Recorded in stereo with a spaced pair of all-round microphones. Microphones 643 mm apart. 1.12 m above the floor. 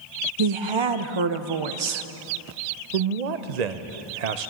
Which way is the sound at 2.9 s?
80° right.